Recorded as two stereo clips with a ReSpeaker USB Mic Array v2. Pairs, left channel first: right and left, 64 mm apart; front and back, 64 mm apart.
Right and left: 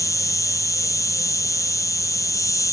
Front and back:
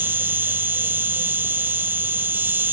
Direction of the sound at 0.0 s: 125° right.